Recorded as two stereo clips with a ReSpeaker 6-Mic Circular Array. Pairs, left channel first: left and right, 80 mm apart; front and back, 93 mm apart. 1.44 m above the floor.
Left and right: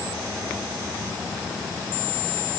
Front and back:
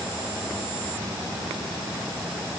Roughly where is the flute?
I don't hear a flute.